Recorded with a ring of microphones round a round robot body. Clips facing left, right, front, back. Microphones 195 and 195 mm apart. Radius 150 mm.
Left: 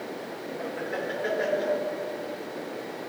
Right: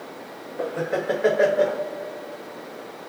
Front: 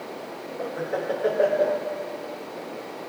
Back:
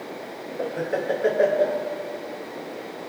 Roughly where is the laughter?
Behind right.